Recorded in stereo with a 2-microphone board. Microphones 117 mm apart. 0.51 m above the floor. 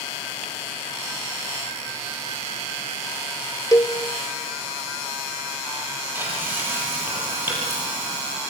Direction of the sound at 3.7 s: 30° left (ahead or behind).